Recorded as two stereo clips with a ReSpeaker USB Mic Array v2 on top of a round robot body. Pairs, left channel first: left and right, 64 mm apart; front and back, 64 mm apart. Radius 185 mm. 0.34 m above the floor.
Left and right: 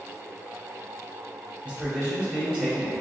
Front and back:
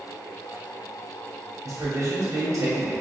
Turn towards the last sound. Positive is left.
turn(degrees=-165)